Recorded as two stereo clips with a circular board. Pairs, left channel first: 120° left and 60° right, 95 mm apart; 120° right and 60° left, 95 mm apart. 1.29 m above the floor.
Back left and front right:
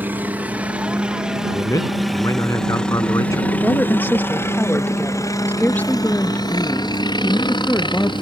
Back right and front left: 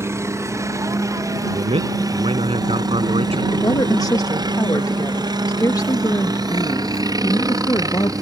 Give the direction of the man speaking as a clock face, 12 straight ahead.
10 o'clock.